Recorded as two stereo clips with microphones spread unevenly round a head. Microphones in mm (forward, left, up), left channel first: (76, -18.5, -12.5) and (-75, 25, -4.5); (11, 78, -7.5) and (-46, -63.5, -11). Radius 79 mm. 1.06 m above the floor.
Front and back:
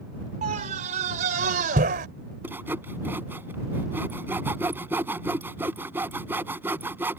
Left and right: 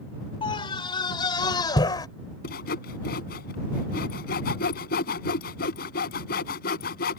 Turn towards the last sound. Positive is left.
turn(degrees=85)